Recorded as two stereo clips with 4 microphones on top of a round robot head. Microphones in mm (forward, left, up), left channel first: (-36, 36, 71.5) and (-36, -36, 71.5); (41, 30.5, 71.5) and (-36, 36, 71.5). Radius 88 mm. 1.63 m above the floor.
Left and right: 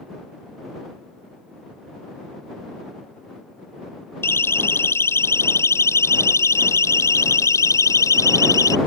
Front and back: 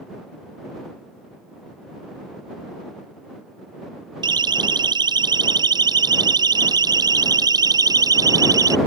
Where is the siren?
145° left; by 8.8 s 130° left.